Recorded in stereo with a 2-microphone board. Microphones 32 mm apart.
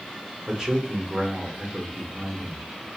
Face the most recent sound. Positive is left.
turn(degrees=-25)  # may be behind; listen again after turning